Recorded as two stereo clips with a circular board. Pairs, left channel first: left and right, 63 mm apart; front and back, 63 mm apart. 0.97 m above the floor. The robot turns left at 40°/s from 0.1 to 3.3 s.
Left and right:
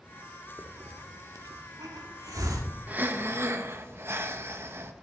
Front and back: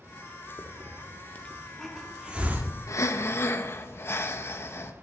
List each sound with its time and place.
0.6 s a hiss: 40° right, 1.3 m; by 2.7 s 125° right, 1.3 m
2.9 s breathing: 30° right, 0.9 m; by 4.9 s 45° right, 0.9 m